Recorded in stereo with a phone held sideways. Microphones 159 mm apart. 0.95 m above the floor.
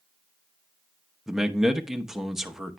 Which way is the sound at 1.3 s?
5° right (ahead or behind).